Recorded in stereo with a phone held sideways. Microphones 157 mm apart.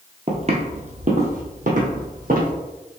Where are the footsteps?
40° right (ahead or behind), 1.1 m; by 2.5 s 65° right (ahead or behind), 2 m.